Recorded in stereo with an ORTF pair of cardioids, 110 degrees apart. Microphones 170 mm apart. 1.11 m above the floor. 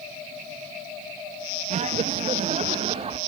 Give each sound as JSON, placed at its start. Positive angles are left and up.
{"t": 1.7, "sound": "laughter", "azimuth_deg": -45, "distance_m": 1.0}